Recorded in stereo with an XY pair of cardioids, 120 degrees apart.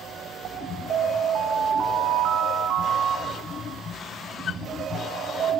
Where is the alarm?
55° right, 3 m.